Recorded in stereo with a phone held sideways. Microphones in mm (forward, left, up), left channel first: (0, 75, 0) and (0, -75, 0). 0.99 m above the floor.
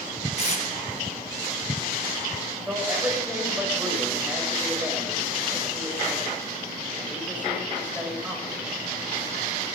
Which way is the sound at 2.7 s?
10° right (ahead or behind).